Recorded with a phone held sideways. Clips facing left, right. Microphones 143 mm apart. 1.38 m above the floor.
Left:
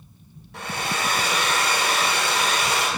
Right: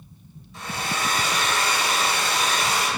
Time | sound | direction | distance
0.5 | a hair dryer | 65° left (ahead or behind) | 0.8 m